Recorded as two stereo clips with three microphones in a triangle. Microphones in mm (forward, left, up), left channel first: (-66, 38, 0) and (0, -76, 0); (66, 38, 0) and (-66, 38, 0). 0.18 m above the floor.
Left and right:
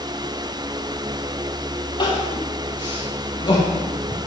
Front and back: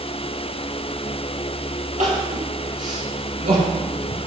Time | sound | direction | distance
2.0 | crying | 175° left | 4.5 m